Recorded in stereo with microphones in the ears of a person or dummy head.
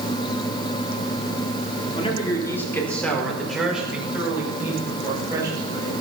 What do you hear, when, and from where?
1.9 s a man speaking: 25° left (ahead or behind), 3.5 m; by 5.9 s 25° right (ahead or behind), 8 m